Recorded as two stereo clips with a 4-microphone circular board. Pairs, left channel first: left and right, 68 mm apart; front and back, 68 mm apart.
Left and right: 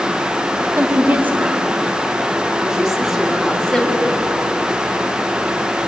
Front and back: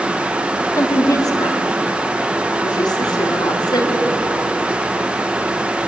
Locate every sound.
0.8 s a woman speaking: 30° right, 3.5 m; by 4.1 s 10° left, 4 m